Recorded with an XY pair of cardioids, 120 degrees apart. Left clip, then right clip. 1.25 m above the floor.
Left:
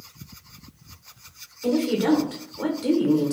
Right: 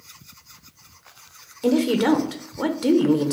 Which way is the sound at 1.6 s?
35° right.